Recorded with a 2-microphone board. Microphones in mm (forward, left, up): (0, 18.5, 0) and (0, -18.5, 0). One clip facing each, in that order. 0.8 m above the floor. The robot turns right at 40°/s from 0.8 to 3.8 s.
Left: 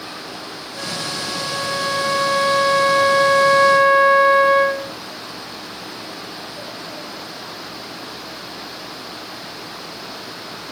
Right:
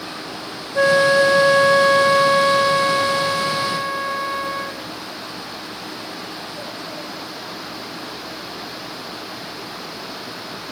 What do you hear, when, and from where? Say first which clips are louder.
0.8 s a flute: right 15 dB; 70° right; by 5.0 s 50° left